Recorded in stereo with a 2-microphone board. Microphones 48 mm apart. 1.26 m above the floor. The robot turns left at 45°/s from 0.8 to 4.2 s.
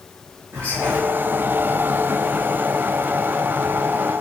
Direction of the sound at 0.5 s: 65° right (ahead or behind).